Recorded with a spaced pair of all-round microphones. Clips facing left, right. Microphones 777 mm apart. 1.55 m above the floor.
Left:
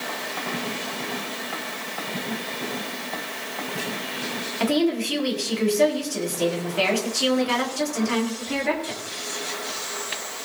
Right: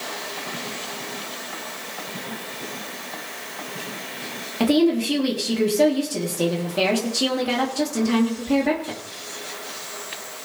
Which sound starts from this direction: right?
A woman speaking, at 4.6 s.